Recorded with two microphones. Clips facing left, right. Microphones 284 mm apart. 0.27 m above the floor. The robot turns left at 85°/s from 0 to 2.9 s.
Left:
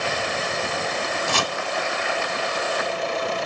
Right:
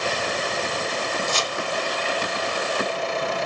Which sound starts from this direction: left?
Chopping, at 1.3 s.